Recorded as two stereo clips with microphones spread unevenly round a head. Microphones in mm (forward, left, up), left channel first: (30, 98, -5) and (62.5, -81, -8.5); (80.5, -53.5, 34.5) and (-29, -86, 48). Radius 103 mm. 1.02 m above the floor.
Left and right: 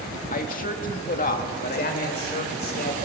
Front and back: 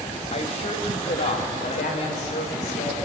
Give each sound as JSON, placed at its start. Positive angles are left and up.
{"t": 0.3, "sound": "a woman speaking", "azimuth_deg": 55, "distance_m": 2.0}
{"t": 1.7, "sound": "a man speaking", "azimuth_deg": 60, "distance_m": 3.5}